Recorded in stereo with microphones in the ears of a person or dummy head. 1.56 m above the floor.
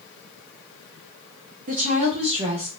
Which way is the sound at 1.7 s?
40° right (ahead or behind).